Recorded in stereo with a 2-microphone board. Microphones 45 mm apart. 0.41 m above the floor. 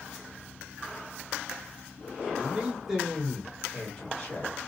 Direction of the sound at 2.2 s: 30° right (ahead or behind).